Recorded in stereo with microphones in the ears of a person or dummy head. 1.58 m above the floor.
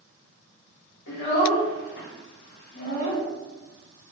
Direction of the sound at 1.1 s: 65° left (ahead or behind).